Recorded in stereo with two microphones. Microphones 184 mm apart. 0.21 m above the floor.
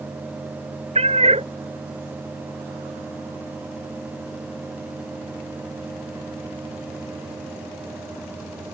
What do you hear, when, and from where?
0.9 s a cat meowing: 35° right (ahead or behind)